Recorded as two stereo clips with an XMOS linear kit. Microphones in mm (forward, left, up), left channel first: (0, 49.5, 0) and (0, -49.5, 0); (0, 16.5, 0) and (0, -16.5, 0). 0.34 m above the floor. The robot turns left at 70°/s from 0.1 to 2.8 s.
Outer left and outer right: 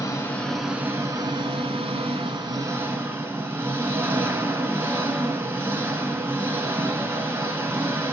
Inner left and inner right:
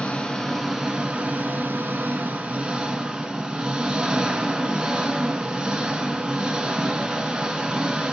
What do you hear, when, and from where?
0.0 s an engine running: 35° left, 0.8 m; by 8.1 s 155° right, 0.8 m